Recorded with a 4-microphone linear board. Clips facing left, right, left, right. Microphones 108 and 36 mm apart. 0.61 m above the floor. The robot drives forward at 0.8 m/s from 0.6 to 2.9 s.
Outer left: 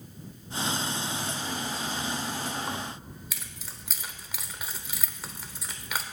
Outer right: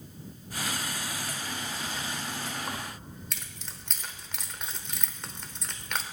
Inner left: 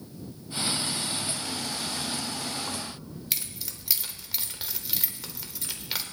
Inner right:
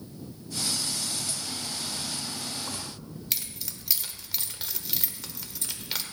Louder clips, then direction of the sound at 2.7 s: Outer left 2 dB, inner left 2 dB; 5° left (ahead or behind).